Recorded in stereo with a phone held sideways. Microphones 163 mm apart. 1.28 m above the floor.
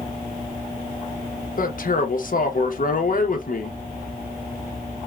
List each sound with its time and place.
1.6 s a man speaking: 60° left (ahead or behind), 0.9 m